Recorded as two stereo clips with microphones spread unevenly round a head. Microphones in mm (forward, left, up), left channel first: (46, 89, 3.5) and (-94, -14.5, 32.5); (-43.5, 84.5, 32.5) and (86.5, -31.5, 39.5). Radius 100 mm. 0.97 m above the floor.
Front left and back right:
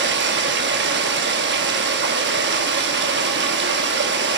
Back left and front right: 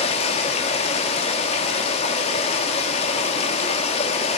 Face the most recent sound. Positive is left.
turn(degrees=-165)